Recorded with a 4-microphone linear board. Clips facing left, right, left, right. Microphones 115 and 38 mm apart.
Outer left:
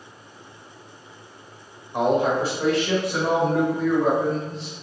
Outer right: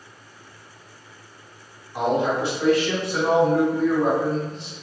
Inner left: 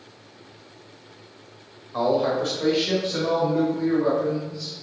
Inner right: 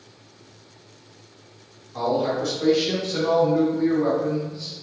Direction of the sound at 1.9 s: 50° left (ahead or behind).